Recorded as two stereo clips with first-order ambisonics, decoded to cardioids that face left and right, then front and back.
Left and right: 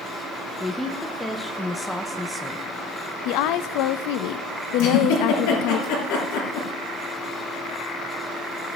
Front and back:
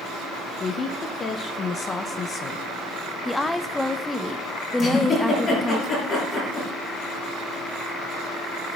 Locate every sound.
0.6 s a woman speaking: 5° left, 0.8 m
3.2 s a woman speaking: 85° left, 0.7 m
4.8 s a giggle: 65° left, 7 m